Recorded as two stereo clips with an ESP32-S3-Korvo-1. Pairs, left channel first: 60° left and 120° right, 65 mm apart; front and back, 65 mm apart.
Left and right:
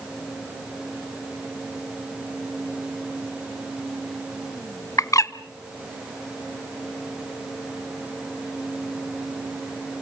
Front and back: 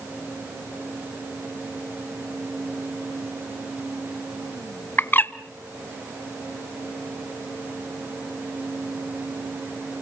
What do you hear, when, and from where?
5.0 s a bird: 50° left, 0.7 m